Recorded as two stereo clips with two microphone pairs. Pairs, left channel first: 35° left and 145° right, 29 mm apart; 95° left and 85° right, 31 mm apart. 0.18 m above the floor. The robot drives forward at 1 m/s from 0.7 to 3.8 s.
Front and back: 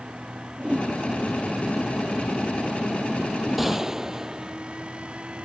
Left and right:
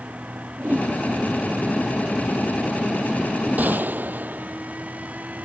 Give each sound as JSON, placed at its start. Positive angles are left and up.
{"t": 0.6, "sound": "a whoosh", "azimuth_deg": -100}
{"t": 3.6, "sound": "a gunshot", "azimuth_deg": -65}